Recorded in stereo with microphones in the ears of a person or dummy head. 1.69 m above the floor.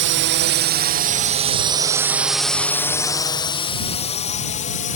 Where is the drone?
60° right (ahead or behind); by 5.0 s 45° left (ahead or behind).